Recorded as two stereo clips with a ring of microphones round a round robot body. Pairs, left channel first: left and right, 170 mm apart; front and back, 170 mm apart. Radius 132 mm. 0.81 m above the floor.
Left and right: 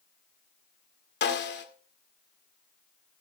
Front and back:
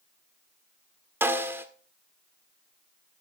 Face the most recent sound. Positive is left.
turn(degrees=105)